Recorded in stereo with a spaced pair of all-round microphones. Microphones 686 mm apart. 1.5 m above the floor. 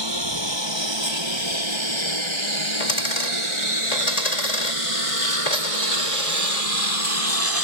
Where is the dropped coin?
80° left.